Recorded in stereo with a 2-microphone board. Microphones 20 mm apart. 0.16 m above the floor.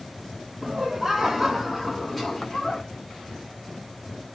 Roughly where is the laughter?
Right.